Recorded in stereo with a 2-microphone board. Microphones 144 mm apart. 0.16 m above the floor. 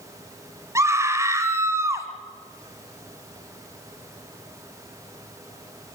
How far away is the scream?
About 1.9 m.